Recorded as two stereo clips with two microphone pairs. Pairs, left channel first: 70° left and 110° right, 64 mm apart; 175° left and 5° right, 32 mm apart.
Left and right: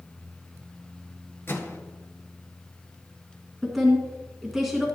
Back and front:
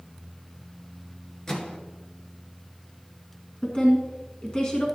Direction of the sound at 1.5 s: 115° left.